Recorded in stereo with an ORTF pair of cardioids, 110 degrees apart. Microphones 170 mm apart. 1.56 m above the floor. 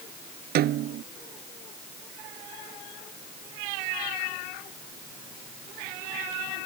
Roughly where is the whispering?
I don't hear whispering.